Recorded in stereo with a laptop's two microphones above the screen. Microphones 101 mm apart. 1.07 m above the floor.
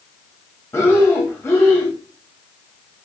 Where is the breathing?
20° left (ahead or behind), 2.5 m.